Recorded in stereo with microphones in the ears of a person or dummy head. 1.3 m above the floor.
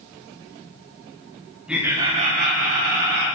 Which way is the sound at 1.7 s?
5° right (ahead or behind).